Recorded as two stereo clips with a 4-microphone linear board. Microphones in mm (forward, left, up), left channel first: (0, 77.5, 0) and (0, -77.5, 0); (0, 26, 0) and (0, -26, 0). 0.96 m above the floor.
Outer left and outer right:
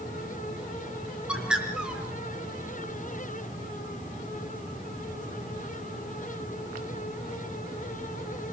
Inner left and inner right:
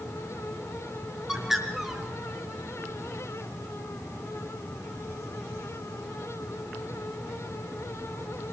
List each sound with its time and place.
1.3 s a bird: 5° right (ahead or behind), 3 m